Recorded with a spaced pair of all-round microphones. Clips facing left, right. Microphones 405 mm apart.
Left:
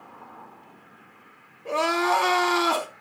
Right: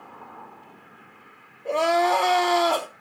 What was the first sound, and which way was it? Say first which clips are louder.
Crying: right 3 dB; 20° left (ahead or behind).